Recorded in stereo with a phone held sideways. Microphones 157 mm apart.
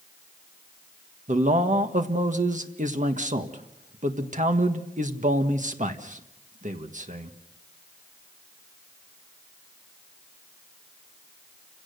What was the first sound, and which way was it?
A man speaking, 55° right (ahead or behind).